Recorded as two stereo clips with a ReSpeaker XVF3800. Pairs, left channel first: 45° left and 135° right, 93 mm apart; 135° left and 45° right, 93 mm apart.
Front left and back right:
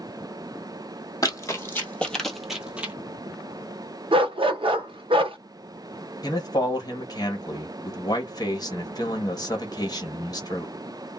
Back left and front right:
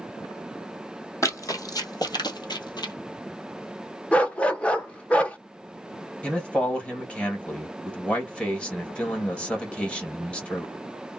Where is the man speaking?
60° left, 1.4 m.